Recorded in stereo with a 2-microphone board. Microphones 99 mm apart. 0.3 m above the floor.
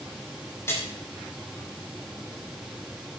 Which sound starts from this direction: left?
A splash, at 0.7 s.